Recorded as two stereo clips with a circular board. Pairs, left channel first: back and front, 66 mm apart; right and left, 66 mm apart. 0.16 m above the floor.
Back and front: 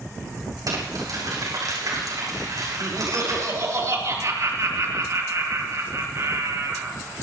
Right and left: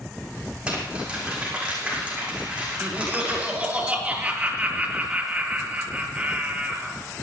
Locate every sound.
0.7 s crumpling: 20° left, 7.5 m
2.8 s laughter: 25° left, 3.5 m